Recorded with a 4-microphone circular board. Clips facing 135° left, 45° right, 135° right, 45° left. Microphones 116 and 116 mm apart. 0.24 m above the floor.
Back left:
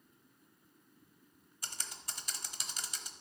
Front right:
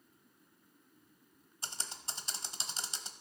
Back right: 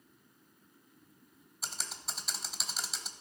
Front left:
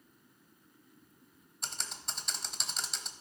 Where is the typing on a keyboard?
50° right, 0.7 m.